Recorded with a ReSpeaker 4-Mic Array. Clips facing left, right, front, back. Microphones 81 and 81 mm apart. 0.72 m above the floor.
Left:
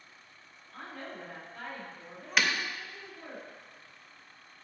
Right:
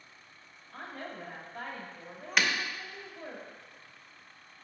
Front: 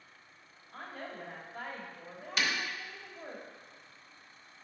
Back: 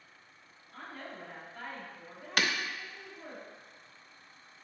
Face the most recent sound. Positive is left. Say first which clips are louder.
# even, back 2 dB
turn(degrees=180)